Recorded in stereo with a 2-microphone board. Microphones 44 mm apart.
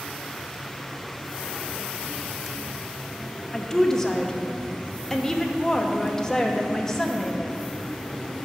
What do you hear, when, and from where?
3.5 s a woman speaking: 10° left (ahead or behind), 0.7 m